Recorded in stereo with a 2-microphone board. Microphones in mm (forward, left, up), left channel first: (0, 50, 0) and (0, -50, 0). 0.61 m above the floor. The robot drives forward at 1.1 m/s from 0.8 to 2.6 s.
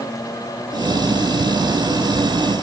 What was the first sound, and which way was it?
Only background noise.